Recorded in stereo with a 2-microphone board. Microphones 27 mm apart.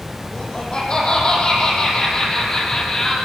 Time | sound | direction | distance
0.3 | laughter | 35° left (ahead or behind) | 9 m